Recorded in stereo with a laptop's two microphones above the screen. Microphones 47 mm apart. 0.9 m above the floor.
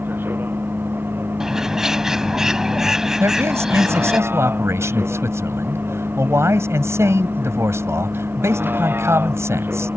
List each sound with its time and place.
0.0 s a vehicle: 50° right (ahead or behind)
1.4 s a bird: 10° right (ahead or behind)
3.2 s a man speaking: 70° right (ahead or behind)